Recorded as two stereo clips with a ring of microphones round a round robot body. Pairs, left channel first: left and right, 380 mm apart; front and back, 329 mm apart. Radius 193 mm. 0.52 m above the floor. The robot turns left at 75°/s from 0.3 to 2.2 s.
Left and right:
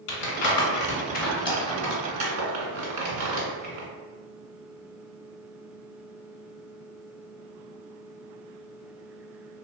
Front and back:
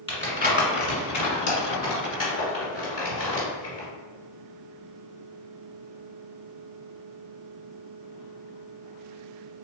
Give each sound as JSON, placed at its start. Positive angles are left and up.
{"t": 0.1, "sound": "crumpling", "azimuth_deg": 75, "distance_m": 1.7}